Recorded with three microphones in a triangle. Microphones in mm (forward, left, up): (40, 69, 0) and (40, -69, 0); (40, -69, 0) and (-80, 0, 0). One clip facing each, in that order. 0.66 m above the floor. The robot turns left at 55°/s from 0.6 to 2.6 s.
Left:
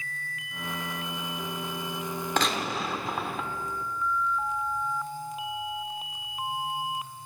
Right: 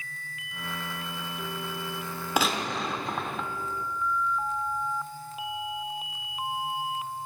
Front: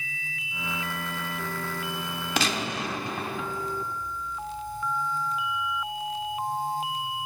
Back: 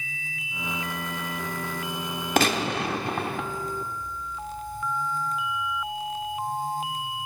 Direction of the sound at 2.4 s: 170° right.